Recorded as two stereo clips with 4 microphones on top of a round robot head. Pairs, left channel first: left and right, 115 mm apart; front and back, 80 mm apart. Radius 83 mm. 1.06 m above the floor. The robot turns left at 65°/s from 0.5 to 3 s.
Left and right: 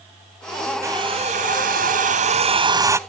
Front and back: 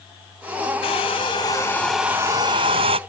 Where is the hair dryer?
15° right; by 3.0 s 160° right.